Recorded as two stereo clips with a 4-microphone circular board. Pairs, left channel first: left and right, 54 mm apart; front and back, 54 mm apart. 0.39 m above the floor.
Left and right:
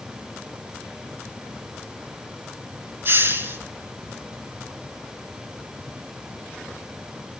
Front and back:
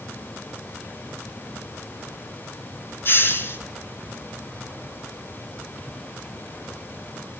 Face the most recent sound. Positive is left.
turn(degrees=-45)